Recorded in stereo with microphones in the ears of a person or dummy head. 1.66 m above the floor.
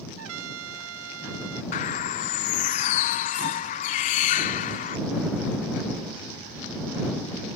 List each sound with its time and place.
0.2 s a trumpet: 75° right (ahead or behind)
1.7 s a bird: 35° left (ahead or behind)